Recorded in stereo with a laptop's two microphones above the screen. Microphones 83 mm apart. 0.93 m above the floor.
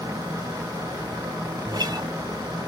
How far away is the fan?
About 1.7 m.